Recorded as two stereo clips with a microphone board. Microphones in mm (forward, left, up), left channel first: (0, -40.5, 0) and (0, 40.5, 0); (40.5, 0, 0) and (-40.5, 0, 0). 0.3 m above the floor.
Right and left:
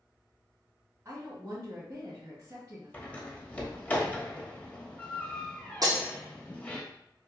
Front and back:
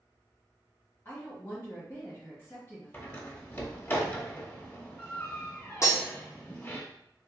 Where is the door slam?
35° right, 0.9 m.